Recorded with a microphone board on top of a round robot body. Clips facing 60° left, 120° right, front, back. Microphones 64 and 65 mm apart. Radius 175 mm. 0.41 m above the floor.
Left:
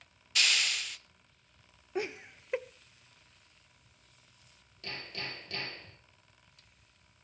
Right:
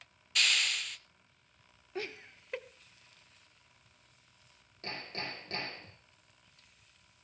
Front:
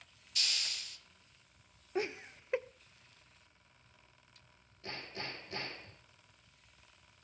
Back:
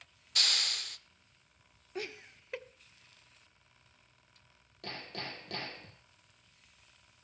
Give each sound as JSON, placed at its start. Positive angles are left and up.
{"t": 0.3, "sound": "a hiss", "azimuth_deg": 150, "distance_m": 0.7}
{"t": 1.9, "sound": "laughter", "azimuth_deg": 15, "distance_m": 0.8}
{"t": 4.8, "sound": "hammering", "azimuth_deg": -175, "distance_m": 5.5}